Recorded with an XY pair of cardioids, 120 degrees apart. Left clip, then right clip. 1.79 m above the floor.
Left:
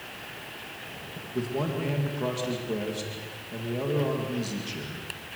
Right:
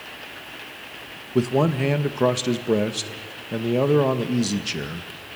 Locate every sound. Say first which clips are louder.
1.4 s a man speaking: right 9 dB; 60° right, 1.9 m